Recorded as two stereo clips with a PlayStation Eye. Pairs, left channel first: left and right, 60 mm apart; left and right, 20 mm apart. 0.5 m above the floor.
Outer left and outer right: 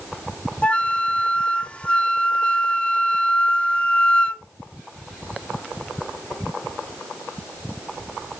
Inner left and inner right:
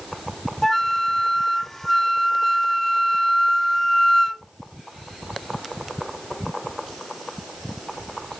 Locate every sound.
0.6 s a flute: 20° left (ahead or behind), 0.5 m